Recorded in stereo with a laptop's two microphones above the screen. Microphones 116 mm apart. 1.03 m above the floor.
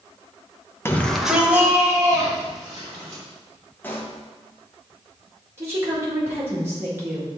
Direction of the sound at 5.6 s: 20° right (ahead or behind).